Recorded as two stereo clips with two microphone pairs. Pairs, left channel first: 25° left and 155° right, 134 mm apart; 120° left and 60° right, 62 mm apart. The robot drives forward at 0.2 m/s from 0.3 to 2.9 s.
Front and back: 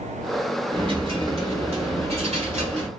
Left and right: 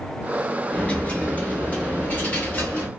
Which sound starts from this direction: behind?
A dropped coin, at 0.7 s.